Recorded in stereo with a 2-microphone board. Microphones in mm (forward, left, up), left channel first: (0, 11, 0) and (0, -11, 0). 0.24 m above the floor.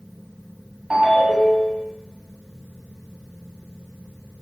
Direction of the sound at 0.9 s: 25° right (ahead or behind).